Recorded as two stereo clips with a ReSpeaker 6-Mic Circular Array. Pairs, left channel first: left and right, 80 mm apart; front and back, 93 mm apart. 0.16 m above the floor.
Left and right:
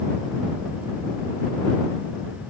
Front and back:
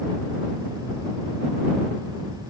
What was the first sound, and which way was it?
Only background noise.